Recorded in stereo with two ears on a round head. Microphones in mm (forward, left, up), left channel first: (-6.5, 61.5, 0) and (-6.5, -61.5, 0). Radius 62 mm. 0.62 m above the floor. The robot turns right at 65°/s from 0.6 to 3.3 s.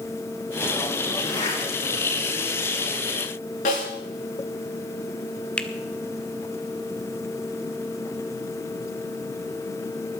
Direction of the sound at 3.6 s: 60° left (ahead or behind).